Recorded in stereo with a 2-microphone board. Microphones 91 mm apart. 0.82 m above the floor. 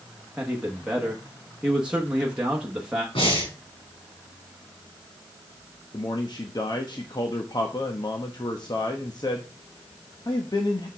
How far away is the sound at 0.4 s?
About 1.1 m.